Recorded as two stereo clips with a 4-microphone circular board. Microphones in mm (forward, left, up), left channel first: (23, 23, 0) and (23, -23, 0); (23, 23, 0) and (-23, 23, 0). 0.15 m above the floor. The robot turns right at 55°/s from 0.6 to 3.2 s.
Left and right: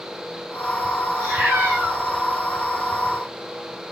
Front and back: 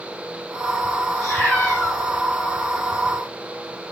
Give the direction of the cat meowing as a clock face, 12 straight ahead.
2 o'clock.